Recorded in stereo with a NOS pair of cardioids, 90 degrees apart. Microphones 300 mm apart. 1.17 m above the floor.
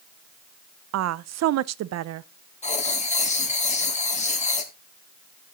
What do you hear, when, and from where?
0.9 s a woman speaking: 60° right, 0.6 m
2.6 s writing: 25° left, 1.8 m